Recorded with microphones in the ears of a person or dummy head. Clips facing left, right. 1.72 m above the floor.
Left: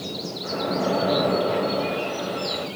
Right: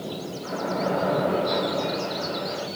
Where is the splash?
30° left (ahead or behind), 1.8 m.